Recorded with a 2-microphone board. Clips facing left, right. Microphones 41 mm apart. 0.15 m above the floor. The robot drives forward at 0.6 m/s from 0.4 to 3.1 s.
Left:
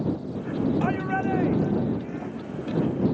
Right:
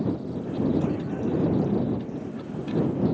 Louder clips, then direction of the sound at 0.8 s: Left 2 dB; 60° left (ahead or behind).